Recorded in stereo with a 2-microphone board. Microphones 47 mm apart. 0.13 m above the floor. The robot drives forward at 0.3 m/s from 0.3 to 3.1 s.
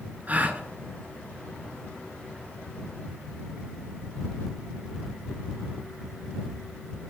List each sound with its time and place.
0.3 s a gasp: 35° right (ahead or behind), 1.0 m